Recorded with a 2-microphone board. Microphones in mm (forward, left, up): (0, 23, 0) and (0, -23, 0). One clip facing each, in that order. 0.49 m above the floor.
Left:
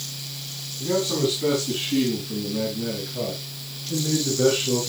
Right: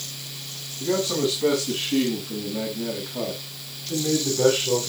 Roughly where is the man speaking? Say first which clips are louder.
Even; centre.